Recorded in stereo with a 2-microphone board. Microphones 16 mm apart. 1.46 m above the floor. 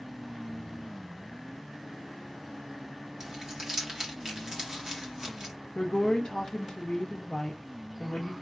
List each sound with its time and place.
3.2 s crumpling: 40° right (ahead or behind), 1.3 m
5.8 s a woman speaking: 60° left (ahead or behind), 0.7 m